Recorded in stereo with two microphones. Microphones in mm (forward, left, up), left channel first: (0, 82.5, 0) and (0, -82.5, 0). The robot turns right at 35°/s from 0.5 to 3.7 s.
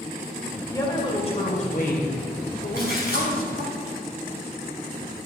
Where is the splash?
60° left (ahead or behind), 5 m; by 3.3 s 80° left, 5 m.